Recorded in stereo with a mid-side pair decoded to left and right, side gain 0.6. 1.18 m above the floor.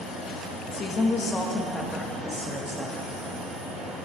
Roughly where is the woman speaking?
Ahead left.